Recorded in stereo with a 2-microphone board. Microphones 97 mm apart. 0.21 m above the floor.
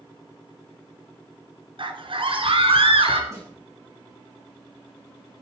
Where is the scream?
60° right (ahead or behind), 2.5 m; by 3.2 s 65° right (ahead or behind), 3 m.